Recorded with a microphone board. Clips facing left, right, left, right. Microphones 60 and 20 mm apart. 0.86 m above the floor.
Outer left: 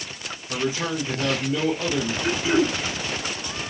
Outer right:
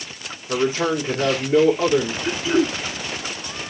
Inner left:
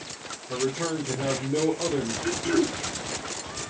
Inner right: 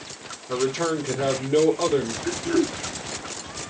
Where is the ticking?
I don't hear ticking.